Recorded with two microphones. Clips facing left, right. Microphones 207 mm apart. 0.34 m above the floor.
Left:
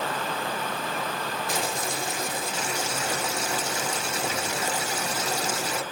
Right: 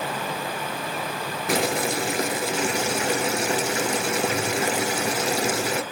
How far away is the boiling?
About 1.3 m.